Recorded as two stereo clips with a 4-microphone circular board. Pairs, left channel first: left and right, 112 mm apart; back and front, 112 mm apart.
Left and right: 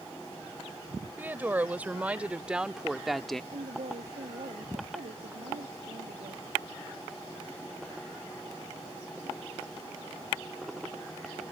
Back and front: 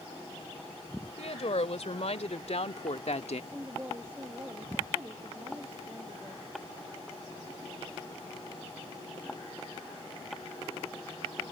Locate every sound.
1.2 s a woman speaking: 165° right; by 3.4 s 175° left
3.5 s a woman speaking: 75° right